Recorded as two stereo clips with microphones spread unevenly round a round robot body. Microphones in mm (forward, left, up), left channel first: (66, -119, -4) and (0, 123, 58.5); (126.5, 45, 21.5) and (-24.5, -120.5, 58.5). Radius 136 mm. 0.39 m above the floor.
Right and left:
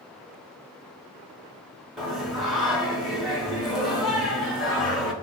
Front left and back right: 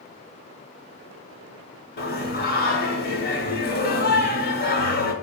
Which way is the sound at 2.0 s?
10° left.